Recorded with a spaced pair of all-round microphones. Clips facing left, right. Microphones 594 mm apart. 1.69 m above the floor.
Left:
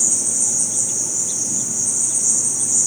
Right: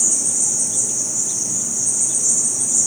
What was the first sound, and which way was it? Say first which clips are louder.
An insect: even; 5° right (ahead or behind).